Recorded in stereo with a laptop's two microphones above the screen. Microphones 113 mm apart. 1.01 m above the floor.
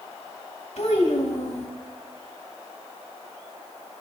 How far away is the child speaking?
About 3 m.